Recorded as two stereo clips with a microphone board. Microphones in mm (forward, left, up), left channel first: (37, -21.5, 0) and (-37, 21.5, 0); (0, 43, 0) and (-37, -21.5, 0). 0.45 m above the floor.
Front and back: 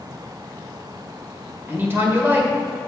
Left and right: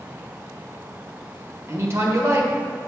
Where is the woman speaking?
155° right, 1.9 m.